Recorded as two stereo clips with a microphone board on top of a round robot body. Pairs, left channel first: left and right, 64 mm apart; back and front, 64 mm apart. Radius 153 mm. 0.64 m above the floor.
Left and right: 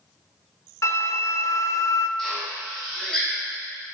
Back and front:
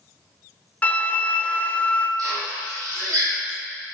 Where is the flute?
120° left, 0.6 m.